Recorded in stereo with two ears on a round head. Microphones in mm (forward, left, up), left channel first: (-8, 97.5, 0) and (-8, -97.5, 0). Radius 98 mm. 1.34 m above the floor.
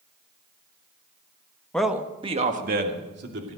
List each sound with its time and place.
1.7 s a man speaking: 5° left (ahead or behind), 1.3 m; by 3.6 s 60° right (ahead or behind), 3 m